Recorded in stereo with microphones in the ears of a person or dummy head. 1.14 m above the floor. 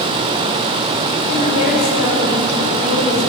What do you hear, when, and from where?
1.3 s a woman speaking: 40° left (ahead or behind), 3.5 m